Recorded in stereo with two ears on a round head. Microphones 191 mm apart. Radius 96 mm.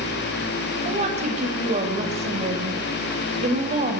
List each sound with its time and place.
0.8 s a woman speaking: 30° right (ahead or behind), 4.5 m